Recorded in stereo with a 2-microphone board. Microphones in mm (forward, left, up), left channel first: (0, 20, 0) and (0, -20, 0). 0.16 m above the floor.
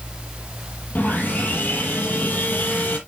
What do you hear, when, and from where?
0.9 s sawing: 40° left (ahead or behind), 6.5 m